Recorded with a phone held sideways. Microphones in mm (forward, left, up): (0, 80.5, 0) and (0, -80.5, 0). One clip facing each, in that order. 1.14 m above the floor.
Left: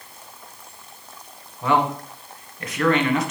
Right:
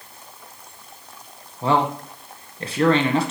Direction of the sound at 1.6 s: 30° right (ahead or behind).